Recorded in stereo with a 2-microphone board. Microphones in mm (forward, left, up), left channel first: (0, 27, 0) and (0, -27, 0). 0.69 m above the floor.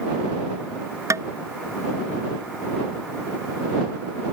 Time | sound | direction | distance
1.1 | tapping | 75° right (ahead or behind) | ?